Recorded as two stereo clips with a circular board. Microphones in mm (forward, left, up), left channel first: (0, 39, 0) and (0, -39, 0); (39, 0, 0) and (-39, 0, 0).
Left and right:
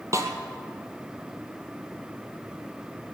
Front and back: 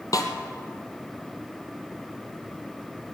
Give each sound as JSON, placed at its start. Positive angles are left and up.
{"t": 0.1, "sound": "a snare drum", "azimuth_deg": -40, "distance_m": 1.4}